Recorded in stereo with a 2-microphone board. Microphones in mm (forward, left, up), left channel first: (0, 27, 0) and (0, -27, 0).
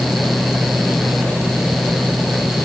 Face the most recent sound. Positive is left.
No sound to turn to.